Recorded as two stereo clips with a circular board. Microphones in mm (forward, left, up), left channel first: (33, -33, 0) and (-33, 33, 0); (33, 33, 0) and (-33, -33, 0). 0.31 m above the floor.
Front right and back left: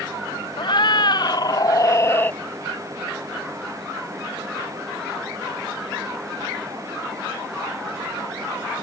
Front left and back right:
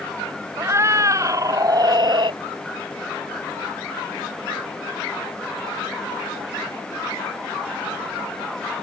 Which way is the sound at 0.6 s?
75° right.